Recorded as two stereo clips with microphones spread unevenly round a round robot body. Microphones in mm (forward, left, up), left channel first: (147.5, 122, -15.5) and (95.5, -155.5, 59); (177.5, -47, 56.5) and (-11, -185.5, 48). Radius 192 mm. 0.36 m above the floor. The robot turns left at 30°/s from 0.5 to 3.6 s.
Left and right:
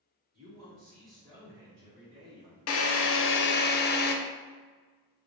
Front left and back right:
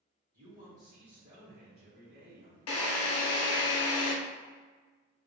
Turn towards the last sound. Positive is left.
turn(degrees=30)